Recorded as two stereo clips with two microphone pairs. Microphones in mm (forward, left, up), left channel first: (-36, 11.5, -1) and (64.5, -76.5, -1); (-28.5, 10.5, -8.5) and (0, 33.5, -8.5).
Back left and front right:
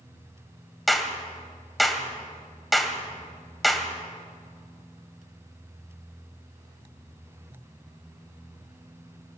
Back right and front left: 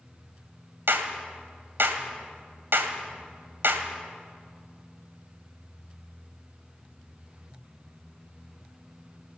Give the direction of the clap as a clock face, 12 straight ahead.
10 o'clock.